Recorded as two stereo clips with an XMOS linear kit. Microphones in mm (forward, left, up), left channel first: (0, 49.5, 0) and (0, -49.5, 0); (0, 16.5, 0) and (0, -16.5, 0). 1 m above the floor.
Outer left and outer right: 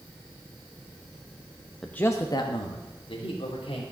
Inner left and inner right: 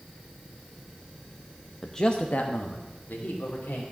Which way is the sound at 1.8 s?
5° left (ahead or behind).